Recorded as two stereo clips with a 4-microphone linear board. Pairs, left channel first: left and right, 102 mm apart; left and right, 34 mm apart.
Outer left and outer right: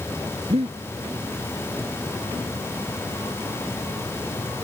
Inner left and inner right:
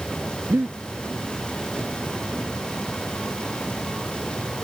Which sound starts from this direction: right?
Breathing, at 0.5 s.